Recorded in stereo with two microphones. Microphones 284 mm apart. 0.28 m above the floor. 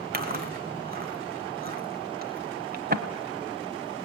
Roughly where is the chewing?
Right.